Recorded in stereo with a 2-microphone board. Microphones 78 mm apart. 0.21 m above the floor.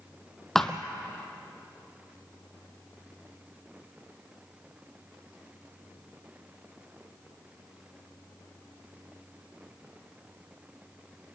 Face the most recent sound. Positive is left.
turn(degrees=5)  # may be behind; listen again after turning